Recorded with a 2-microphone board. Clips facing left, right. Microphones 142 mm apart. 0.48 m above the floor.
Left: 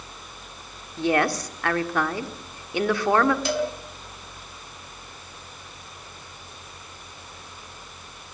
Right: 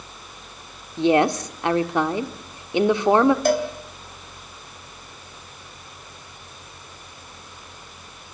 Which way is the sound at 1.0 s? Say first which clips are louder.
Right 5 dB; 20° right (ahead or behind).